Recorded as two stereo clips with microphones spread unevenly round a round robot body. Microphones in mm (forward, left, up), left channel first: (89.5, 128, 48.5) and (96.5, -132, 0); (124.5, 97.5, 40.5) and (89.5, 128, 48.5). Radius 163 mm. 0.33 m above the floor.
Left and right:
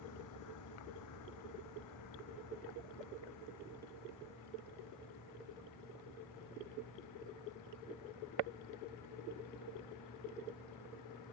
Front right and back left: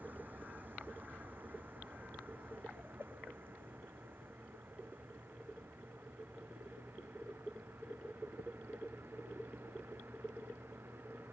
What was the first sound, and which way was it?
A vehicle, 90° left.